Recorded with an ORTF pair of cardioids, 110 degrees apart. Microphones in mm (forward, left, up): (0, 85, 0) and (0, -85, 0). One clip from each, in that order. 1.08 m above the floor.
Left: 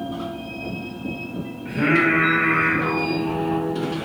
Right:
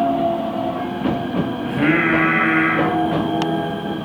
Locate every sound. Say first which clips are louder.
1.6 s singing: right 1 dB; 15° right, 1.0 m